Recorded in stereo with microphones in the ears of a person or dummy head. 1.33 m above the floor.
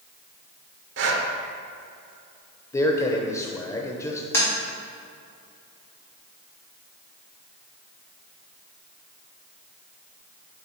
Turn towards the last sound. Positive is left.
turn(degrees=10)  # may be behind; listen again after turning